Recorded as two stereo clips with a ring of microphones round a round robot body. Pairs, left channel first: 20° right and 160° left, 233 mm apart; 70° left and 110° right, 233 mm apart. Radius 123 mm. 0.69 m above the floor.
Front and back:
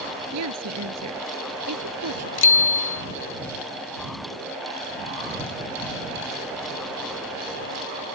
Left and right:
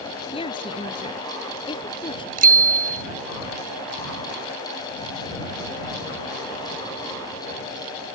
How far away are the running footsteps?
No running footsteps in this recording.